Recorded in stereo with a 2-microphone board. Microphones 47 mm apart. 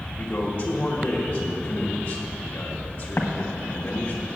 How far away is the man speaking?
About 1.7 m.